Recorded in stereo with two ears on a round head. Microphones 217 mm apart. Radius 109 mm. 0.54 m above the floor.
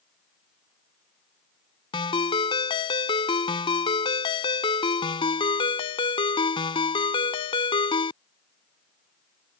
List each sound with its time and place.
1.9 s a ringtone: 20° left (ahead or behind)